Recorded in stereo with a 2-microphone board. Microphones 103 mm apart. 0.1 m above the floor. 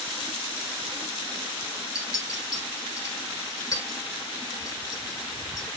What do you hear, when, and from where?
1.9 s a clink: 35° left (ahead or behind), 0.8 m